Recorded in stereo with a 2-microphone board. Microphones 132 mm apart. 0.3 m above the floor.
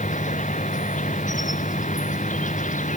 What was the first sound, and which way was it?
An insect, 85° left.